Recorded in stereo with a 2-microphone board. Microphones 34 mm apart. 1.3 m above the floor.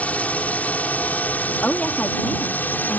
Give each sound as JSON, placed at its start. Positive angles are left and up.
{"t": 0.0, "sound": "a drone", "side_deg": 45}
{"t": 1.6, "sound": "a woman speaking", "side_deg": 35}